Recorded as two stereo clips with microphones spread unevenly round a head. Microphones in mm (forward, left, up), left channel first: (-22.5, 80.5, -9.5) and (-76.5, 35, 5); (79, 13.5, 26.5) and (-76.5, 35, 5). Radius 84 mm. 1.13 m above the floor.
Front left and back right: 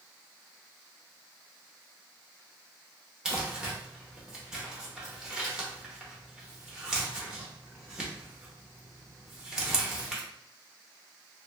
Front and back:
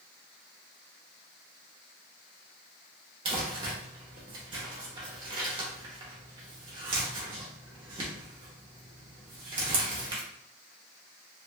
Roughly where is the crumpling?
Behind right.